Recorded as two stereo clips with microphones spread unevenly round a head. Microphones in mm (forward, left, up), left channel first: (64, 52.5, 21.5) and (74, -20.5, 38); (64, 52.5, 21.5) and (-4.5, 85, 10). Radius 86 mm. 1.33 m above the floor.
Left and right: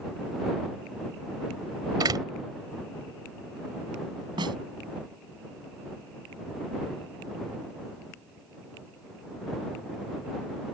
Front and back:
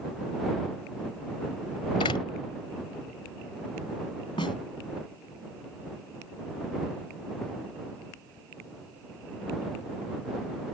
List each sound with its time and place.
2.0 s a door slam: 65° right
4.4 s a snare drum: 80° right